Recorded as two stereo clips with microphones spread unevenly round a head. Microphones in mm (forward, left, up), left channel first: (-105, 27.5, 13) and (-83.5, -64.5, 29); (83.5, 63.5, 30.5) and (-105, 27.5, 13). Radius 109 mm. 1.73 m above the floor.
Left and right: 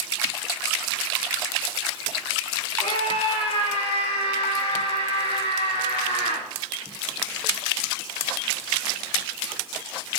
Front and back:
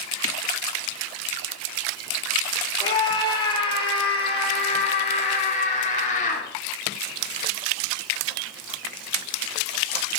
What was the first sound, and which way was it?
A scream, 75° left.